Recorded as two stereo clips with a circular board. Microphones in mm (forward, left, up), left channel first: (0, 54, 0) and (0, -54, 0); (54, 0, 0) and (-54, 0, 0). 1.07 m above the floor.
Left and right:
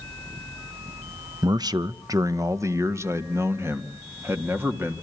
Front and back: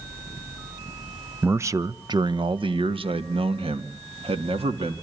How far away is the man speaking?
About 0.5 m.